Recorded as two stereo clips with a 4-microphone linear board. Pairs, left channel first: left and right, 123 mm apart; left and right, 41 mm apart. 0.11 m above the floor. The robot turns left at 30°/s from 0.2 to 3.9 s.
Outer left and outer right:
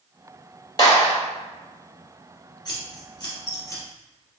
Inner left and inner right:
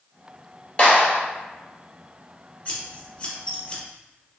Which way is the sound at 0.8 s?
35° left (ahead or behind).